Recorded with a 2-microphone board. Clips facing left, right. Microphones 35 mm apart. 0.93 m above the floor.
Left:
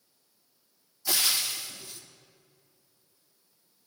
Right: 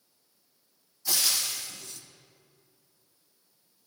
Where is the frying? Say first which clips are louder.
Left 1 dB; 15° left (ahead or behind), 0.6 m.